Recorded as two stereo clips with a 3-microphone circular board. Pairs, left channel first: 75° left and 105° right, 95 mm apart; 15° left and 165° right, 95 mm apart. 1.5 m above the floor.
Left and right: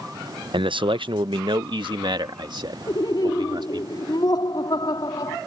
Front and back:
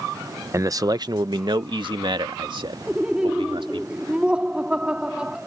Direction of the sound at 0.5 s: 115° right.